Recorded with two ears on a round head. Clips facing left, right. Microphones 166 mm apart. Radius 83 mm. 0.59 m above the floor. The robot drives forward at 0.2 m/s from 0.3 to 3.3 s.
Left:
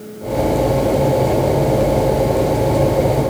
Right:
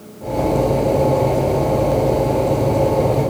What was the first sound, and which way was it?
Only background noise.